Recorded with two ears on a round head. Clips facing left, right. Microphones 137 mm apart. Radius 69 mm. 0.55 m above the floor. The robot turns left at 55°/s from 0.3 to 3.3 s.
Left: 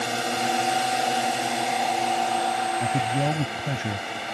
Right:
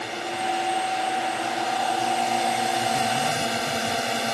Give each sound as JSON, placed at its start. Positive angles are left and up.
{"t": 0.0, "sound": "a drone", "azimuth_deg": 100}
{"t": 2.8, "sound": "a man speaking", "side_deg": 50}